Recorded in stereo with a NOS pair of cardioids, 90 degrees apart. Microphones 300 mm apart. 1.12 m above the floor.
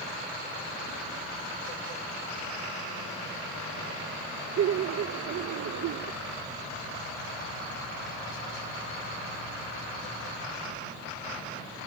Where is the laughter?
55° right.